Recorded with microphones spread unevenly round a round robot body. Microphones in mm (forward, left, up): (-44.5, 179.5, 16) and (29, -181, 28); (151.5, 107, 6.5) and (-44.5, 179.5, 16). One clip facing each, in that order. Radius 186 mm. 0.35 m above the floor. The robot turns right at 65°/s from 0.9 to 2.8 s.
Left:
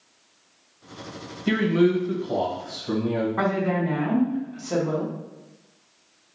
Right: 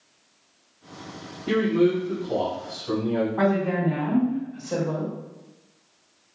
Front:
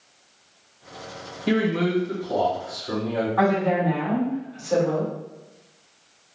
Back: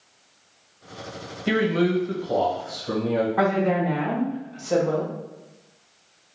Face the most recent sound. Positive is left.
turn(degrees=100)